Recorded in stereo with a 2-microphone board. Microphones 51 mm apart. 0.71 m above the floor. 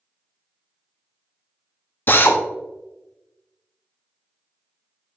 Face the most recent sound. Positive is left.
turn(degrees=40)  # may be behind; listen again after turning